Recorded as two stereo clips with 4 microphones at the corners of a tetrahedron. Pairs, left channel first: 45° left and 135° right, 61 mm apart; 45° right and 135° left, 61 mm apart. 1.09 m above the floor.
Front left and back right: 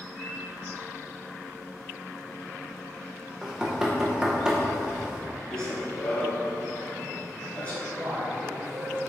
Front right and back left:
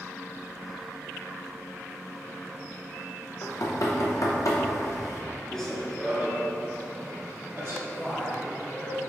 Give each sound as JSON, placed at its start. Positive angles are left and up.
{"t": 3.4, "sound": "knocking", "azimuth_deg": -55, "distance_m": 0.6}
{"t": 5.5, "sound": "running footsteps", "azimuth_deg": 5, "distance_m": 1.0}
{"t": 7.8, "sound": "a man speaking", "azimuth_deg": -115, "distance_m": 1.6}